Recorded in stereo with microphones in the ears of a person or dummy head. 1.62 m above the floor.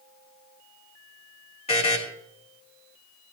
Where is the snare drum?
No snare drum in this recording.